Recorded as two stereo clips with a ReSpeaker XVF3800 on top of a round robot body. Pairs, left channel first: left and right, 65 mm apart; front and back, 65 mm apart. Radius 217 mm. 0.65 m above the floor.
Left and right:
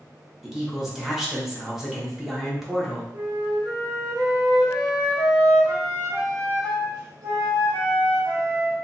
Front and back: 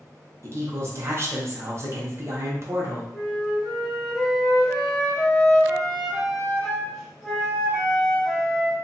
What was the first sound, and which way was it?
A woman speaking, 175° right.